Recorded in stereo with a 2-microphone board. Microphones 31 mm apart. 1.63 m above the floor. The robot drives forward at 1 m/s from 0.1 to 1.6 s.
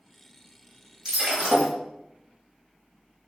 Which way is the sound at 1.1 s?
20° right (ahead or behind).